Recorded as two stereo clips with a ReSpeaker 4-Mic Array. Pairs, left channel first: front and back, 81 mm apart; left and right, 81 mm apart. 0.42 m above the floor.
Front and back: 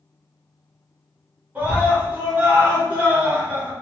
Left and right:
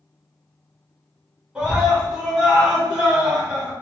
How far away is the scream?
About 1.5 m.